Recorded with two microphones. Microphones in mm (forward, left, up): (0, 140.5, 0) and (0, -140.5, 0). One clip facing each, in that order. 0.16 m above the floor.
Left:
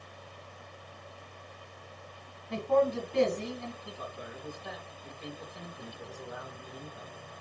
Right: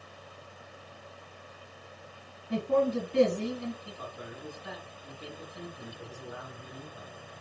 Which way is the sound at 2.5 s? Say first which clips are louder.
Even; 15° right (ahead or behind).